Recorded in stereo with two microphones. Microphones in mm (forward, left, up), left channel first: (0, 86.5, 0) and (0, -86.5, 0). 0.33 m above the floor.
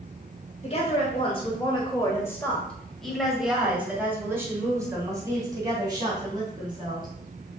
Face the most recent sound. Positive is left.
turn(degrees=-30)  # may be behind; listen again after turning